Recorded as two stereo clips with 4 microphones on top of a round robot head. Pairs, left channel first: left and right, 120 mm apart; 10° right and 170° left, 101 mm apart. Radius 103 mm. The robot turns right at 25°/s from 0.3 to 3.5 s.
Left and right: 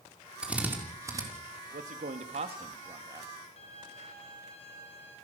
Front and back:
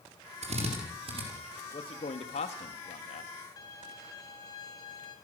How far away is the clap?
I don't hear a clap.